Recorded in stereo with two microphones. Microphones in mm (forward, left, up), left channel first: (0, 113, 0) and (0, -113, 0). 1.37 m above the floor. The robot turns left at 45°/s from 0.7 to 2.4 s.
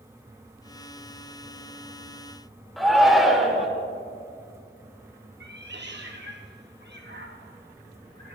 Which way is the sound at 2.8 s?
Centre (ahead or behind).